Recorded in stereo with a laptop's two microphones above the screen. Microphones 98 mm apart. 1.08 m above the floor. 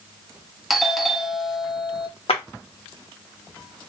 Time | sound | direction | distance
0.7 | a doorbell | centre (ahead or behind) | 0.6 m
2.3 | a clap | 85° left | 1.6 m